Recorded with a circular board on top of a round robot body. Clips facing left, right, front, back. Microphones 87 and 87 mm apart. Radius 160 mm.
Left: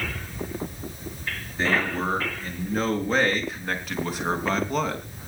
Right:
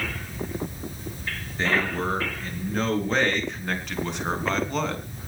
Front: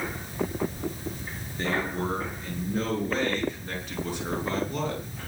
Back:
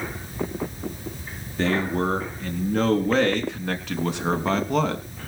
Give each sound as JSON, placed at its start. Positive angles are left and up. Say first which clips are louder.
{"t": 1.6, "sound": "a man speaking", "louder": "even, back 6 dB", "azimuth_deg": 175, "distance_m": 6.0}